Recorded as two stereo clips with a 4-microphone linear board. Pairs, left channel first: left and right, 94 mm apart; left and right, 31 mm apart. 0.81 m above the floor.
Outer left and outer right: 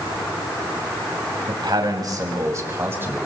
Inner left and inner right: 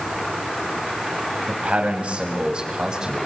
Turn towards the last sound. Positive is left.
turn(degrees=-20)  # may be behind; listen again after turning